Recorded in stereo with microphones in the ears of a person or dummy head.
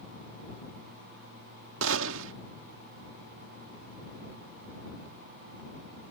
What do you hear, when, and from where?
1.8 s a gunshot: 75° right (ahead or behind)